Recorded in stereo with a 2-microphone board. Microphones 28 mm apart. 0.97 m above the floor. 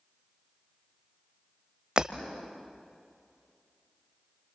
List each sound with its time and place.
2.0 s breaking glass: 30° right (ahead or behind), 1.2 m